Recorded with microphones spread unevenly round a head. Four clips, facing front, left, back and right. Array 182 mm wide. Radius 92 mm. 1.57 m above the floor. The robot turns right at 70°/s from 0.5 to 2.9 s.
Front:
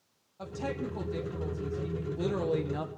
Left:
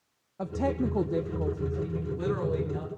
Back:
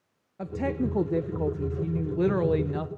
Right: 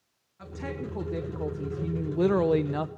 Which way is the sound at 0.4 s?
120° left.